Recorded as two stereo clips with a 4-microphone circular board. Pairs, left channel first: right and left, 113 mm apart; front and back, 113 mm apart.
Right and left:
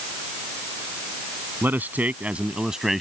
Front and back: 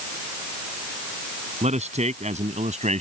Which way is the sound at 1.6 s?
165° left.